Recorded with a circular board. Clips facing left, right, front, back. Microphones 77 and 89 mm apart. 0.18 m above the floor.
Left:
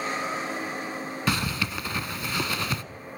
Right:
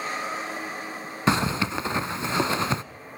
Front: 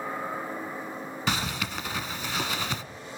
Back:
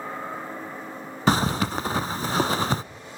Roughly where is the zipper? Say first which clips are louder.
Right 6 dB, back 9 dB; behind right.